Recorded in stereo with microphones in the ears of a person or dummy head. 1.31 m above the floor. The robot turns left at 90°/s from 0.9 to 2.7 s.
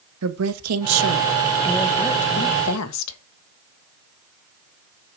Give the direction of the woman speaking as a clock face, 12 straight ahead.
3 o'clock.